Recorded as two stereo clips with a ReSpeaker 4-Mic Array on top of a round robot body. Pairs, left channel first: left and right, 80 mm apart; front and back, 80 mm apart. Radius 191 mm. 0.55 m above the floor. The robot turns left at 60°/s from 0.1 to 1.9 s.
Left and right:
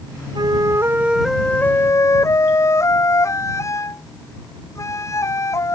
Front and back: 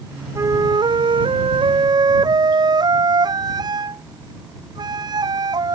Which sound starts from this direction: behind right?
A flute, at 0.3 s.